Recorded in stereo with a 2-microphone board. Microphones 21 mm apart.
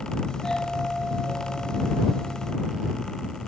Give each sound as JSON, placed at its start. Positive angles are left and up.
{"t": 0.3, "sound": "a doorbell", "side_deg": 35}